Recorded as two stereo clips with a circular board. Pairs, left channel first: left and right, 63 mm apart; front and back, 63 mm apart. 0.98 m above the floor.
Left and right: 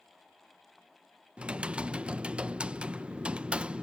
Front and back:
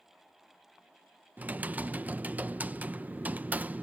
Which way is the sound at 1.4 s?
145° right.